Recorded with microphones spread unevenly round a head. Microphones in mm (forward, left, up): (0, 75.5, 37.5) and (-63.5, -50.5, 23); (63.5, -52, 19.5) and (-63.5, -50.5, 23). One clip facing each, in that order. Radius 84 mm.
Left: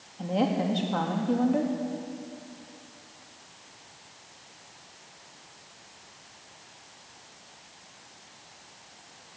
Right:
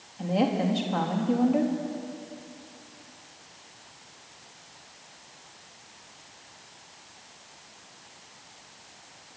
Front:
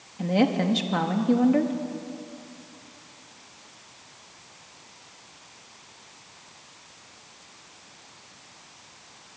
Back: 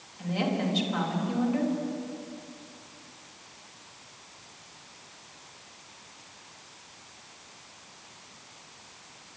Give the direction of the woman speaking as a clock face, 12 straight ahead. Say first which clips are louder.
Right 1 dB, front 7 dB; 1 o'clock.